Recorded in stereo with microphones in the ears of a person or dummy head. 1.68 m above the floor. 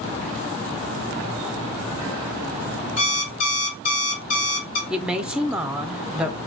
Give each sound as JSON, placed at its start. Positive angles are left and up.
{"t": 3.0, "sound": "an alarm clock", "side_deg": 45, "distance_m": 1.7}
{"t": 4.9, "sound": "a woman speaking", "side_deg": 0, "distance_m": 0.7}